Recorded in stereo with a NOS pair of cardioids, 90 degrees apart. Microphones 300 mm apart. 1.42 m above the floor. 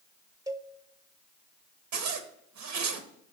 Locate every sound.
0.5 s a cowbell: 10° right, 0.8 m
1.9 s a zipper: 70° right, 0.8 m